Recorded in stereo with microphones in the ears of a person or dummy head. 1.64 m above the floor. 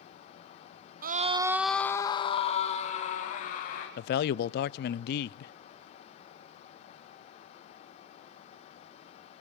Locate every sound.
1.0 s a scream: 55° right (ahead or behind), 0.9 m; by 3.9 s 45° left (ahead or behind), 3 m
4.0 s a man speaking: 60° left (ahead or behind), 0.5 m